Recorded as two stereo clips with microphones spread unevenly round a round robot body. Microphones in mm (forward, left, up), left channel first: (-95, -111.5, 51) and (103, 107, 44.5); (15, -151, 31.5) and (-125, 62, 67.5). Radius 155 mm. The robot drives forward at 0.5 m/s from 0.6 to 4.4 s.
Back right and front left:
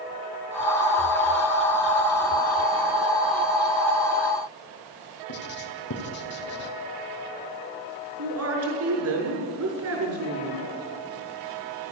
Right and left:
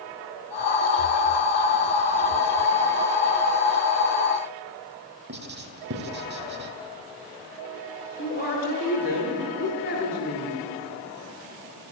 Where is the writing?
175° left, 2.5 m.